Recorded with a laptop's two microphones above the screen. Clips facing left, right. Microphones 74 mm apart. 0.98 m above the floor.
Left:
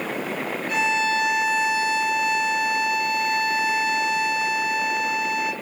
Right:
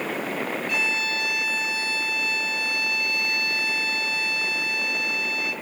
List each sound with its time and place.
0.7 s a violin: 30° left (ahead or behind), 1.4 m